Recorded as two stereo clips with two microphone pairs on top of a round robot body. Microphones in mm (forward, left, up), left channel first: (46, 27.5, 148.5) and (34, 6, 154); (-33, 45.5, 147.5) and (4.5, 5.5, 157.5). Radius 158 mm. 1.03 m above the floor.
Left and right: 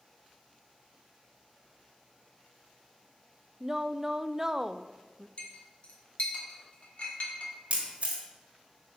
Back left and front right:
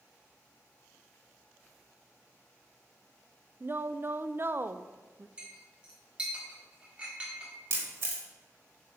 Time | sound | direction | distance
3.6 | a woman speaking | 30° right | 0.5 m
5.4 | a clink | 25° left | 1.6 m
7.7 | a camera shutter | 85° right | 1.4 m